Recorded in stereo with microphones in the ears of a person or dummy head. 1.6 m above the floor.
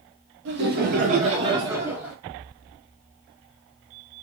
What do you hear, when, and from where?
0.5 s laughter: 65° right (ahead or behind), 1.2 m; by 2.1 s 10° right (ahead or behind), 1.2 m